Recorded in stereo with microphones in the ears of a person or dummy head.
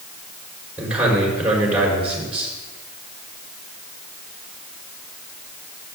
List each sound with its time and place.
0.8 s a man speaking: 10° right (ahead or behind), 4.5 m